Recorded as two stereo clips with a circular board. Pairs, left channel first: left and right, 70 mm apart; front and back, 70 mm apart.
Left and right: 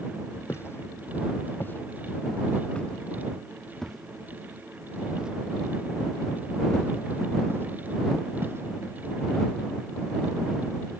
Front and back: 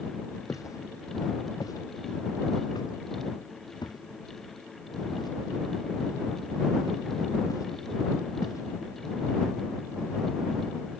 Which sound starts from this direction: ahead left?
Footsteps, at 0.5 s.